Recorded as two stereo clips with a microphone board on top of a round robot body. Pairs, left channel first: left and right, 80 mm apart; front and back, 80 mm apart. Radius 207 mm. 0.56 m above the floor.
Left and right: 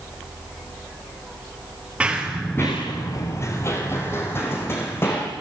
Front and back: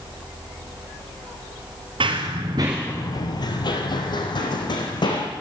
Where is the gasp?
I don't hear a gasp.